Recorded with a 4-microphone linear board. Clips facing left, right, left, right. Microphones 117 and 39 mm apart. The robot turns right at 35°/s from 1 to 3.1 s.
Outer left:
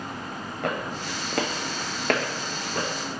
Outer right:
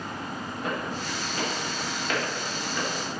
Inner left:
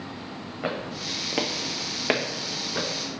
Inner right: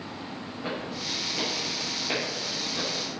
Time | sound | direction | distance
0.6 | footsteps | 70° left (ahead or behind) | 1.1 m